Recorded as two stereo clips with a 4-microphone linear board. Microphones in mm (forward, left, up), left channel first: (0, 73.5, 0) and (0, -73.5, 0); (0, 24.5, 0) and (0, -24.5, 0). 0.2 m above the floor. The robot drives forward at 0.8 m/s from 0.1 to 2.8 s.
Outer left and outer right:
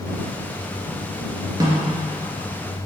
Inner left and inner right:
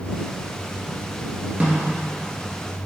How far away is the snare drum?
About 1.9 m.